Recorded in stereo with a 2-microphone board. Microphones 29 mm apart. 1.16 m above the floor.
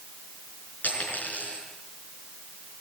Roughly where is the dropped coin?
Left.